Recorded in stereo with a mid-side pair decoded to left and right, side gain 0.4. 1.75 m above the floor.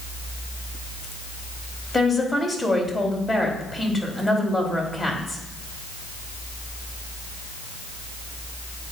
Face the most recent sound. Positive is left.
turn(degrees=25)